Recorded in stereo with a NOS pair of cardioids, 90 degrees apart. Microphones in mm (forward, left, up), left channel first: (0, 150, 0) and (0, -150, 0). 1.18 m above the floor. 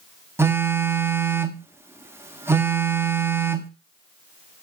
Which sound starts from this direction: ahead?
A phone buzzing, at 0.4 s.